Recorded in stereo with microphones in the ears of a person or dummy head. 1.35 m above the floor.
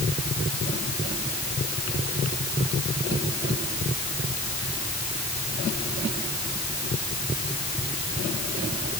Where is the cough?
No cough in this recording.